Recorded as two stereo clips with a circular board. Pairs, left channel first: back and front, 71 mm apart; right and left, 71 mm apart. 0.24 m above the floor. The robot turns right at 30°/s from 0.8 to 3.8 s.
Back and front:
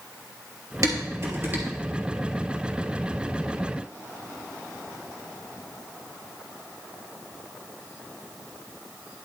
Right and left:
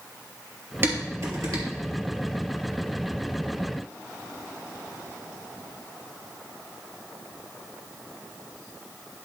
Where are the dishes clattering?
35° left, 3 m; by 1.6 s 60° left, 3 m.